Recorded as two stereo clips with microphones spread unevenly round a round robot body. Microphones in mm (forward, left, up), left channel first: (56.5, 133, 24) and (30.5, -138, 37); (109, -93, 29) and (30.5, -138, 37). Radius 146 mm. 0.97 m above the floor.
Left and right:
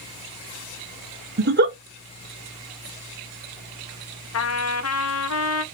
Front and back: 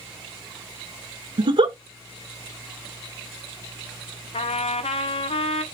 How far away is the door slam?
No door slam in this recording.